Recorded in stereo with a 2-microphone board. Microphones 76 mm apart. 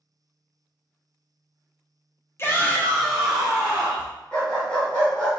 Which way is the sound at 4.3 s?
10° left (ahead or behind).